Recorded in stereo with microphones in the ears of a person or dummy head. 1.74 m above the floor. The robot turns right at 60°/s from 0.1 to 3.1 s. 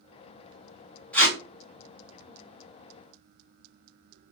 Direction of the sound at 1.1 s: 5° left (ahead or behind).